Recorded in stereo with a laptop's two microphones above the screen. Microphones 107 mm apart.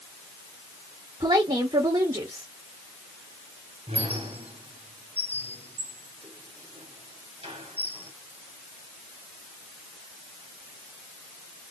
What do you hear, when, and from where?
1.2 s a woman speaking: 45° right (ahead or behind), 1.9 m
3.9 s a squeak: 70° right (ahead or behind), 2.0 m